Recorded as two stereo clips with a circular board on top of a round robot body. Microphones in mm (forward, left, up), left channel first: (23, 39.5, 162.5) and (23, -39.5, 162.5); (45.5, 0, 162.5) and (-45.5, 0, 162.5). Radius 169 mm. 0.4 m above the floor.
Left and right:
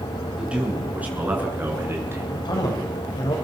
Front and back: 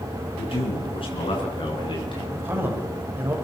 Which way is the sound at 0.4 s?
15° right.